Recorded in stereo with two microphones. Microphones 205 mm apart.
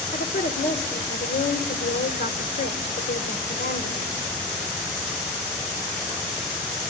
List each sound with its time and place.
0.1 s a woman speaking: 55° left (ahead or behind), 1.9 m